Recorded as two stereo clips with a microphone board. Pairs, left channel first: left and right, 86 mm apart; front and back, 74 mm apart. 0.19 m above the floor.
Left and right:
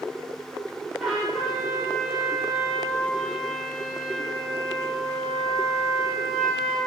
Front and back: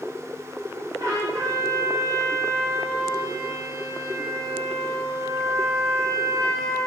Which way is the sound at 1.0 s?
175° right.